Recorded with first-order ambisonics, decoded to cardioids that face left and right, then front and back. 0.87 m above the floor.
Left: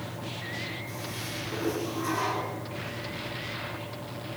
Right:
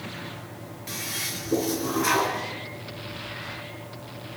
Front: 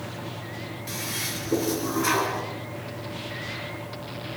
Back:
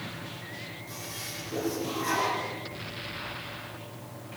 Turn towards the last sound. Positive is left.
turn(degrees=-45)